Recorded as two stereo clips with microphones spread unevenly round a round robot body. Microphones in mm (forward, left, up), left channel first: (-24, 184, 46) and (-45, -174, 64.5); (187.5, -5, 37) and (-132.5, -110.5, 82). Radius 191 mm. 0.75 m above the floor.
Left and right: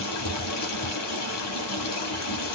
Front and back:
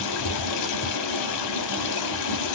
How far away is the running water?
About 0.7 m.